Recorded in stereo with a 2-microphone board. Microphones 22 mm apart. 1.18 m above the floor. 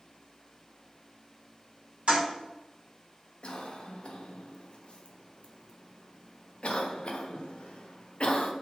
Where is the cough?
55° left (ahead or behind), 0.6 m.